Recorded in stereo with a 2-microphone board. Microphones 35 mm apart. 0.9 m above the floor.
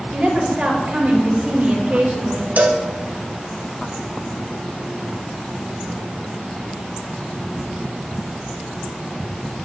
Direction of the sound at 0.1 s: 35° right (ahead or behind).